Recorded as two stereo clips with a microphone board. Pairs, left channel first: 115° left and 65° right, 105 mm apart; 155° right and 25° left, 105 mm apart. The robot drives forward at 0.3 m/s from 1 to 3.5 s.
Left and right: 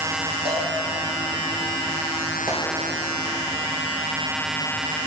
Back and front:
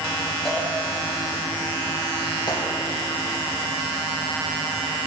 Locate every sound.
0.5 s a cowbell: 70° right, 5 m
2.5 s a gunshot: 115° right, 3 m